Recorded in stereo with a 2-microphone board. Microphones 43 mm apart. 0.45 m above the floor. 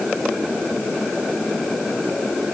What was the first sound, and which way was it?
Only background noise.